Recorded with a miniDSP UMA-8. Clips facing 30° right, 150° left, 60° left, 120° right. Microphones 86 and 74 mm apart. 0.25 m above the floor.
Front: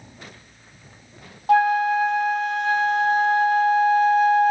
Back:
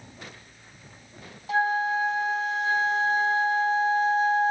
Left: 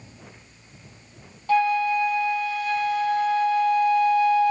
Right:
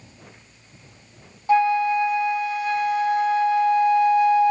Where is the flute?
55° right, 0.6 m.